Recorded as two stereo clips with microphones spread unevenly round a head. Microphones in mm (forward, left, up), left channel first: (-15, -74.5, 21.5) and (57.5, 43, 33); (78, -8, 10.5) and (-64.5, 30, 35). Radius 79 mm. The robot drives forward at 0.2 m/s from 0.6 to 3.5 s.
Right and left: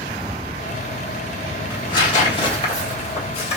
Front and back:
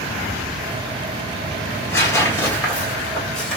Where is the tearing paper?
85° right, 1.4 m; by 3.6 s 115° right, 1.4 m.